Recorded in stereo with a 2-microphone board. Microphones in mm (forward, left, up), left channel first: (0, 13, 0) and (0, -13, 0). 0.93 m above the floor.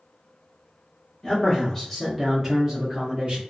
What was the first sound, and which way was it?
A man speaking, 25° left (ahead or behind).